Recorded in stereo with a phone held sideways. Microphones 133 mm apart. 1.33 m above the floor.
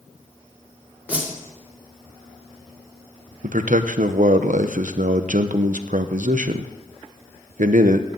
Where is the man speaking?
75° right (ahead or behind), 0.9 m.